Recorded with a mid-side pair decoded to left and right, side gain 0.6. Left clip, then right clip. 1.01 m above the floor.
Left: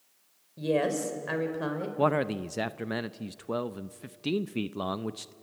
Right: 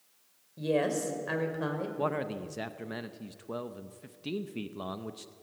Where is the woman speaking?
5° left, 4.5 m.